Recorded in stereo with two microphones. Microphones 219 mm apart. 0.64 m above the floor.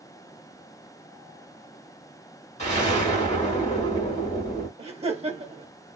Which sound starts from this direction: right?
Laughter, at 4.8 s.